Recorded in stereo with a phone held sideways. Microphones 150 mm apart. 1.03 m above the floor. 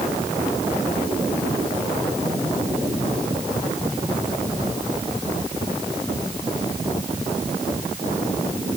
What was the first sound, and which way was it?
Only background noise.